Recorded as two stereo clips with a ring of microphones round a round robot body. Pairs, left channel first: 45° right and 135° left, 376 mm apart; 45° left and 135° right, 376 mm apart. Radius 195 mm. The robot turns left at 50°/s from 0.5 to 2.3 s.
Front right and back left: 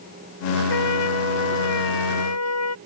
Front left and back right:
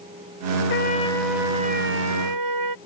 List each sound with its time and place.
0.7 s a trumpet: 15° right; by 2.8 s 95° right